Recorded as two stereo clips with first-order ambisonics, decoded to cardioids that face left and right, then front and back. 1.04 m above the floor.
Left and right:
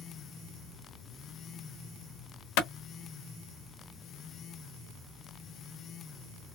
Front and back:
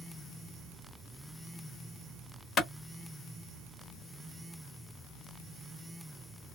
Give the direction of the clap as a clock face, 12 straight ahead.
10 o'clock.